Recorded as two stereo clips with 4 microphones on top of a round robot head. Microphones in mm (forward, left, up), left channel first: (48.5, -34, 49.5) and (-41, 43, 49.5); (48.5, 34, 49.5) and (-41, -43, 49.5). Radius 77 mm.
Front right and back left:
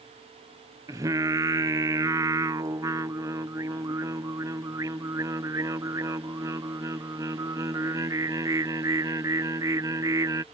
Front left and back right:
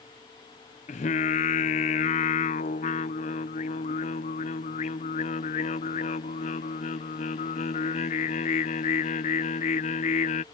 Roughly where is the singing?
Left.